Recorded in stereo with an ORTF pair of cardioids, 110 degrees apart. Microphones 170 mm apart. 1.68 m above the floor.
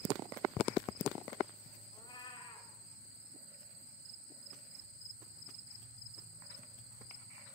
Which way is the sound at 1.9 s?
30° left.